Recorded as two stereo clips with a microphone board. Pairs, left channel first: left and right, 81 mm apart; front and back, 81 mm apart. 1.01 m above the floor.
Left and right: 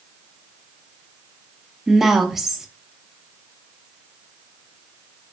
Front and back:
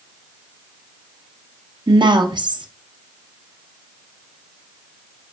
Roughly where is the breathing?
I don't hear breathing.